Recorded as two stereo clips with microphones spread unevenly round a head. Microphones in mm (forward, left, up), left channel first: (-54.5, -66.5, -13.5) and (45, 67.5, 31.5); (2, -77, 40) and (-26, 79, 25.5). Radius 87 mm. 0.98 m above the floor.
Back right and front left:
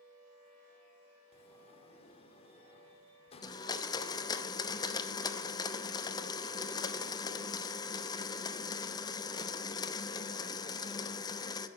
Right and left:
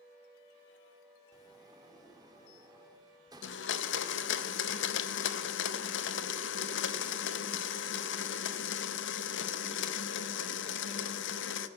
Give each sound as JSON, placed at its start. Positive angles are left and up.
{"t": 1.3, "sound": "a sliding door", "azimuth_deg": 170, "distance_m": 1.0}
{"t": 3.4, "sound": "a blender", "azimuth_deg": -60, "distance_m": 0.6}